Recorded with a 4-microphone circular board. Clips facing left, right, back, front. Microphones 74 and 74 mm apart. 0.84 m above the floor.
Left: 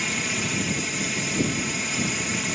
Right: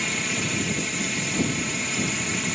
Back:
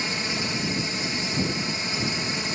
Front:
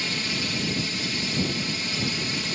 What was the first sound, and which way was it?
A drone, 175° left.